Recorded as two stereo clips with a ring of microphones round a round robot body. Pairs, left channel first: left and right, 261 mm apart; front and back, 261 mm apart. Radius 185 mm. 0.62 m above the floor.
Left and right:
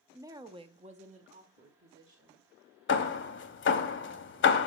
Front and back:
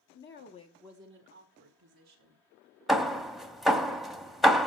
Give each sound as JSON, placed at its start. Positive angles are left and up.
{"t": 0.1, "sound": "a woman speaking", "azimuth_deg": -10, "distance_m": 1.0}
{"t": 2.9, "sound": "hammering", "azimuth_deg": 90, "distance_m": 0.8}